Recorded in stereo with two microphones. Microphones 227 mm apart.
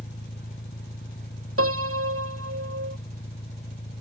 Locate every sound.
0.0 s an engine running: 50° left (ahead or behind)
1.6 s a piano: 90° right